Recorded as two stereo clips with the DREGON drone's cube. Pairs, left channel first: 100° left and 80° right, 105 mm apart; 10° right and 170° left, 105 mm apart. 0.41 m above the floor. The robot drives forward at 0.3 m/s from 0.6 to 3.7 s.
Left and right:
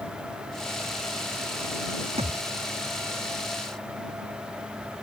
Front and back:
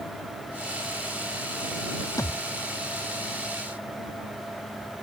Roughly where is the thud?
Right.